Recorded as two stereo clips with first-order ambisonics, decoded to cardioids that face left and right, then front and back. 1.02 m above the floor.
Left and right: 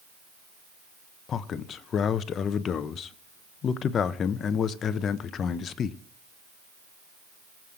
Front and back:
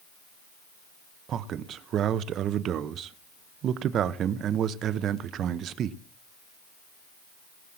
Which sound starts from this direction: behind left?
A man speaking, at 1.3 s.